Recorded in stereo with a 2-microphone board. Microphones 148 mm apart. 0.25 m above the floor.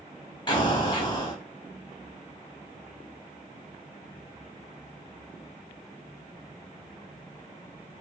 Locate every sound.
0.5 s an explosion: 30° left (ahead or behind), 0.9 m